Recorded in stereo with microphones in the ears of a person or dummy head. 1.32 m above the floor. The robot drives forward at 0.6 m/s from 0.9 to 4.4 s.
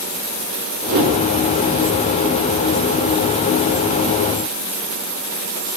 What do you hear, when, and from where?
0.9 s a whoosh: 70° right (ahead or behind), 4 m; by 1.1 s 65° right (ahead or behind), 4 m